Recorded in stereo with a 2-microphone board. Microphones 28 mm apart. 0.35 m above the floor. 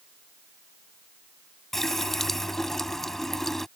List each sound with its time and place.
1.7 s a running tap: 15° left (ahead or behind)